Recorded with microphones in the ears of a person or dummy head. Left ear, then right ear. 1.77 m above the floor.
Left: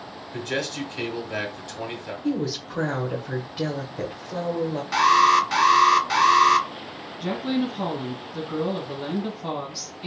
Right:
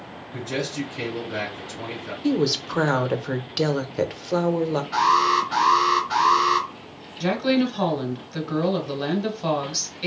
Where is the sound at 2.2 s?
45° right (ahead or behind), 0.7 m.